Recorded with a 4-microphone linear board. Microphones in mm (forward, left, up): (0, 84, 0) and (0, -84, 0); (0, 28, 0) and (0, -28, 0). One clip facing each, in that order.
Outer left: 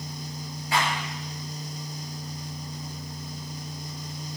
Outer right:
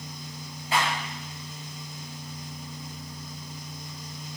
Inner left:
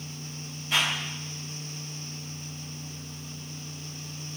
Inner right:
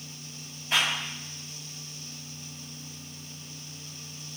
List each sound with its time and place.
0.7 s a clap: 25° right (ahead or behind), 5.5 m